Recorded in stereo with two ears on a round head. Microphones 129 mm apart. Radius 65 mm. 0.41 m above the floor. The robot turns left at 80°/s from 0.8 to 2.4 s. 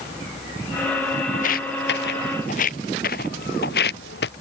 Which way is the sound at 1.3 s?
55° left (ahead or behind).